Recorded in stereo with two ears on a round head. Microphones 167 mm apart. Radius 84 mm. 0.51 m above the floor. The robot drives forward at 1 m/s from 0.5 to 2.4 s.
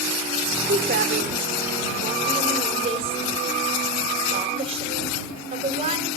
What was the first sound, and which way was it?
A woman speaking, 50° right (ahead or behind).